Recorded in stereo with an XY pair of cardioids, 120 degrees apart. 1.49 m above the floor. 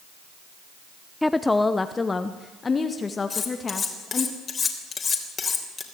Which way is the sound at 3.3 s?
30° left.